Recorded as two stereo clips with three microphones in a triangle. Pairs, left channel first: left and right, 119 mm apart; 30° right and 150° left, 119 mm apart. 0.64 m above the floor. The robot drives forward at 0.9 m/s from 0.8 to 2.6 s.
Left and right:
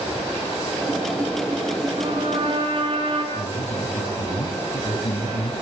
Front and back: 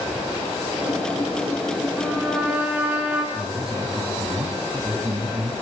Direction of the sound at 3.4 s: 90° left.